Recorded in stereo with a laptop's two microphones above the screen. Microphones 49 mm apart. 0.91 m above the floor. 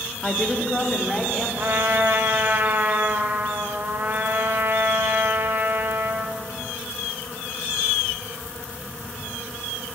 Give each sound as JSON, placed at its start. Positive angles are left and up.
{"t": 0.2, "sound": "a woman speaking", "side_deg": 15, "distance_m": 1.6}
{"t": 1.6, "sound": "a trumpet", "side_deg": -50, "distance_m": 0.9}